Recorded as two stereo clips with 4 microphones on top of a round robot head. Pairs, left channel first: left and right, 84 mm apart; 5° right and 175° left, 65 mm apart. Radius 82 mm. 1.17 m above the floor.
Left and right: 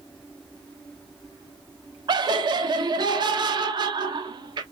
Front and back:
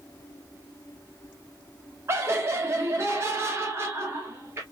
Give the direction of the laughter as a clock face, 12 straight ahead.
4 o'clock.